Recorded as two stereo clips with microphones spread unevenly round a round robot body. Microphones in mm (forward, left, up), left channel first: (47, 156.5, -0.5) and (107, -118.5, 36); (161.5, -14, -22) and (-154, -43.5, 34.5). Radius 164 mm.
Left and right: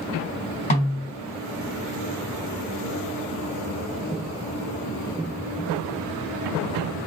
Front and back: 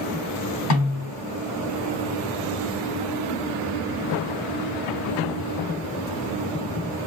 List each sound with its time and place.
0.7 s a snare drum: 40° left, 3 m